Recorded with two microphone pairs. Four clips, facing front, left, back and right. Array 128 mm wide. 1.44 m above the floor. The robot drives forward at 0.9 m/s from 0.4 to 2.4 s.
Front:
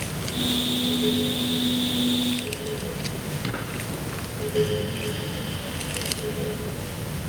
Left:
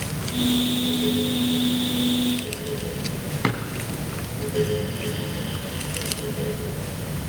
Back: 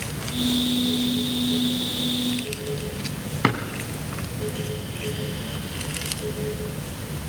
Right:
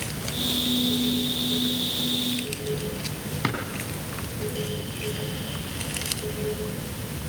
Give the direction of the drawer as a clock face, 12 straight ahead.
6 o'clock.